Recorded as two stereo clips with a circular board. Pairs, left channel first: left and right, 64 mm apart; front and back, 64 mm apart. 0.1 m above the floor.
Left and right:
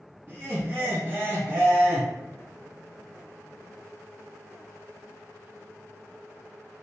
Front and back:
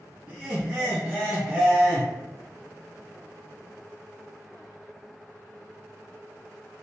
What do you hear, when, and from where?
0.3 s laughter: 130° right, 1.9 m